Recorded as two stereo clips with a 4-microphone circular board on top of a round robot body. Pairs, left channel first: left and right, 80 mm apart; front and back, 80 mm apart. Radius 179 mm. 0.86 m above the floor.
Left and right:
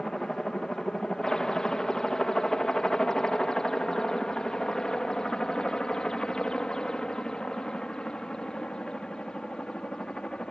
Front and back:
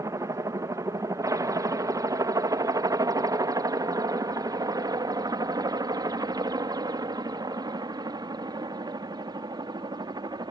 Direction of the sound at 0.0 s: 170° left.